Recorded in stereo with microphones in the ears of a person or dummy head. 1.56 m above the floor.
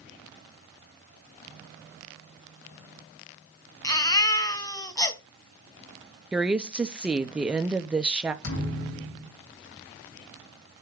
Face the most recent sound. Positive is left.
turn(degrees=75)  # may be behind; listen again after turning